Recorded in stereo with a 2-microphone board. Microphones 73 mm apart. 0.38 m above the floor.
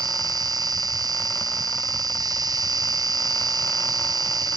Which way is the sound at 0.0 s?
65° right (ahead or behind).